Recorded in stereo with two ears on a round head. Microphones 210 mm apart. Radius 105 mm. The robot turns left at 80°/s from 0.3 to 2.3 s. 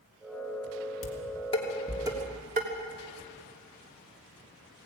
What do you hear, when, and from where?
1.0 s dishes clattering: 65° left (ahead or behind), 3 m; by 2.7 s 35° right (ahead or behind), 3 m